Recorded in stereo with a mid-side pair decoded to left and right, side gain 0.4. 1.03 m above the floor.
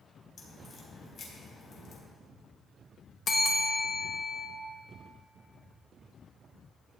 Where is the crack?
55° left, 3.5 m.